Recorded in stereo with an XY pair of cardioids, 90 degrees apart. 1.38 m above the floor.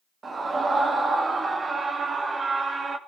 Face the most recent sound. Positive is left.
turn(degrees=-45)